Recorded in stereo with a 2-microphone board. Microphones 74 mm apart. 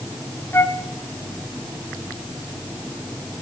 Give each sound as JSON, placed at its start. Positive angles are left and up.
{"t": 0.5, "sound": "a flute", "side_deg": 30, "distance_m": 1.0}